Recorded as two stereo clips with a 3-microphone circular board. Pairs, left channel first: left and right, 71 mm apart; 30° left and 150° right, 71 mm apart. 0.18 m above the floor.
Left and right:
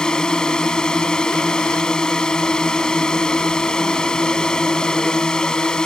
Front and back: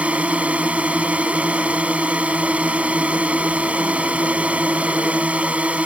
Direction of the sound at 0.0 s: 160° left.